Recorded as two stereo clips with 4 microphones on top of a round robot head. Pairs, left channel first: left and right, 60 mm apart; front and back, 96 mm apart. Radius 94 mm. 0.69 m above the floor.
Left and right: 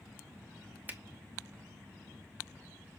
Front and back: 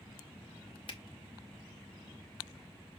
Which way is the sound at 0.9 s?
30° right.